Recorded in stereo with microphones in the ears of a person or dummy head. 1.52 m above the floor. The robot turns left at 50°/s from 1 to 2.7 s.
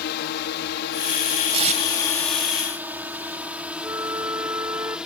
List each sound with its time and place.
0.0 s a drone: 55° left (ahead or behind); by 5.1 s 5° right (ahead or behind)
1.5 s tape being pulled: 30° right (ahead or behind); by 1.8 s 45° right (ahead or behind)
3.8 s a flute: 15° right (ahead or behind)